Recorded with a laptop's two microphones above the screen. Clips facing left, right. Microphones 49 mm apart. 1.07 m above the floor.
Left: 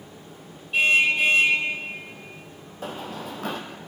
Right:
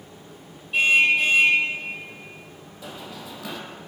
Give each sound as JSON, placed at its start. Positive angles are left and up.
{"t": 0.7, "sound": "a car horn", "side_deg": 0, "distance_m": 2.5}
{"t": 2.8, "sound": "running footsteps", "side_deg": 50, "distance_m": 1.6}